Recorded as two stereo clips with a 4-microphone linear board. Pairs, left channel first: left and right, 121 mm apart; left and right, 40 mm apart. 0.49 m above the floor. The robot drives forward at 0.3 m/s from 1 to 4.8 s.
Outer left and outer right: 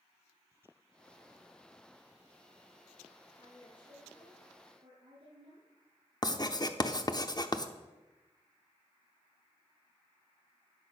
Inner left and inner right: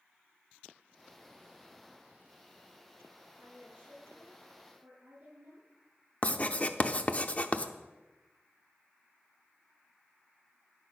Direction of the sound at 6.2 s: 35° left (ahead or behind).